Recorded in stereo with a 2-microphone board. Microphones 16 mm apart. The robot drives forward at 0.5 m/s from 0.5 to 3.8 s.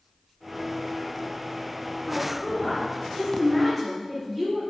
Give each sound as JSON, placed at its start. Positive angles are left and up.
{"t": 2.1, "sound": "a woman speaking", "side_deg": 0, "distance_m": 2.0}